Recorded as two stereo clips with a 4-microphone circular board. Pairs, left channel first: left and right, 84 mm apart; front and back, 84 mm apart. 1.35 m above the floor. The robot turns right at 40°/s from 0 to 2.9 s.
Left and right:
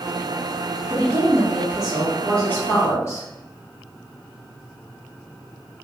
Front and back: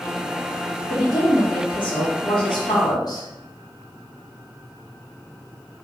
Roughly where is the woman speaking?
Ahead right.